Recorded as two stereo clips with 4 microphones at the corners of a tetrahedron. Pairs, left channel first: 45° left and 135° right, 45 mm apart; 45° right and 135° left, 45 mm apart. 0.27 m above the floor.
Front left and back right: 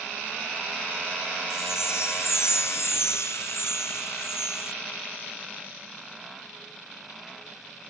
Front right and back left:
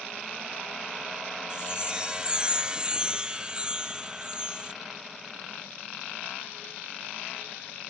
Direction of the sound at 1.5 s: 60° left.